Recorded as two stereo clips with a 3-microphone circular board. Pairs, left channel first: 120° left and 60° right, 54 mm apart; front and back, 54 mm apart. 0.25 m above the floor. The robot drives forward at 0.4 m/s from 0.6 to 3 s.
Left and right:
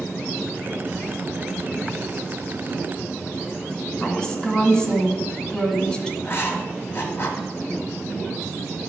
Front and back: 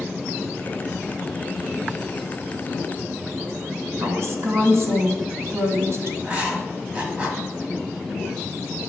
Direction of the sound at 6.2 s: 130° left.